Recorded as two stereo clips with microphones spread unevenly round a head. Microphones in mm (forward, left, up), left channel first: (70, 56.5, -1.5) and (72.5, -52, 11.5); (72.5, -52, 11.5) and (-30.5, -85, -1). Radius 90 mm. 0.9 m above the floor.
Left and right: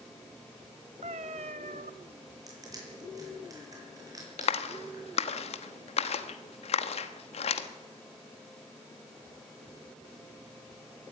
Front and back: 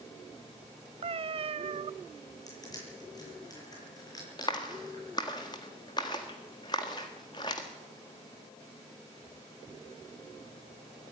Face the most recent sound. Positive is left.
turn(degrees=85)